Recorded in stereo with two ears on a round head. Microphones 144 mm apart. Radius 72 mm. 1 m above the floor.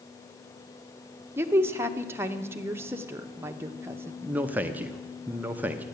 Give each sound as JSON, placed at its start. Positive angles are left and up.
{"t": 1.4, "sound": "a woman speaking", "side_deg": -15, "distance_m": 0.8}
{"t": 4.2, "sound": "a man speaking", "side_deg": -10, "distance_m": 0.6}